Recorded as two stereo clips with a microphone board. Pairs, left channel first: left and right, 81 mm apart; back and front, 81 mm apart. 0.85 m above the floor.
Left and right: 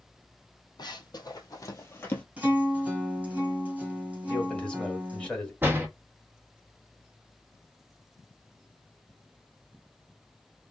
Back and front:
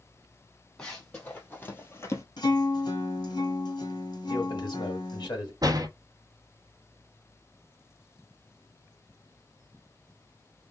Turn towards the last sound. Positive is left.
turn(degrees=-30)